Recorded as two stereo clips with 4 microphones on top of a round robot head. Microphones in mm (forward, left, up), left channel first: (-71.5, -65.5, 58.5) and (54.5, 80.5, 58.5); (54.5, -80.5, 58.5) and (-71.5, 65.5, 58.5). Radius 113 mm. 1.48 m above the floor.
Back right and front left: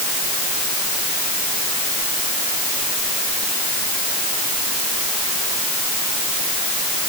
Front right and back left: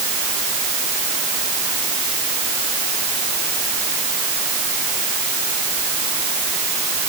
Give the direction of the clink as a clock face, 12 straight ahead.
No clink in this recording.